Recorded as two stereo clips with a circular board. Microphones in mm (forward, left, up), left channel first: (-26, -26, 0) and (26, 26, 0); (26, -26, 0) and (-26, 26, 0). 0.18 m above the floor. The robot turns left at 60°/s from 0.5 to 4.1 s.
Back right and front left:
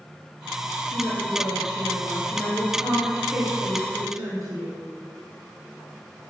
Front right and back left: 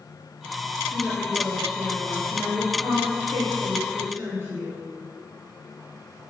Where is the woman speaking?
95° right, 3.5 m; by 4.8 s 75° left, 3.5 m.